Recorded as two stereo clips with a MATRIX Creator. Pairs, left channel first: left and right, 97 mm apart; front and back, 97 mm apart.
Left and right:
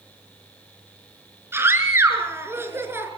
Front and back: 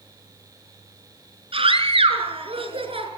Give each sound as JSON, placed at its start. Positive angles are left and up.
{"t": 1.5, "sound": "a scream", "azimuth_deg": -155, "distance_m": 5.0}